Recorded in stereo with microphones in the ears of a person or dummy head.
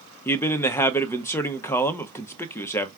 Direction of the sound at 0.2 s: 10° left (ahead or behind).